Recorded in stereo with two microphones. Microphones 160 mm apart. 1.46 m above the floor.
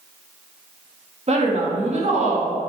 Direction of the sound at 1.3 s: 45° right (ahead or behind).